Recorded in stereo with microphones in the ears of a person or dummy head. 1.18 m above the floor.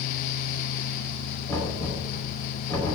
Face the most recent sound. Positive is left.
turn(degrees=15)  # may be behind; listen again after turning